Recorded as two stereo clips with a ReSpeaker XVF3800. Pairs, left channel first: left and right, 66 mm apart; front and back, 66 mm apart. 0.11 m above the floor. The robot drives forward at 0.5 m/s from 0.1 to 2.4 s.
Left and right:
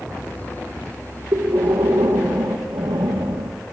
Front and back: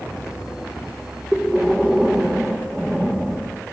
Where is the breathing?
95° right, 4 m; by 3.7 s 100° right, 4 m.